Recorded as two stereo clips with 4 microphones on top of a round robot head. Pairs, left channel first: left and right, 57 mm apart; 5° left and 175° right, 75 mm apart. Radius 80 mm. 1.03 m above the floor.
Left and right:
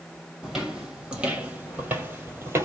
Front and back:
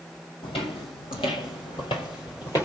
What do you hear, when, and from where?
0.4 s footsteps: 10° right, 2 m; by 2.7 s 55° right, 1.5 m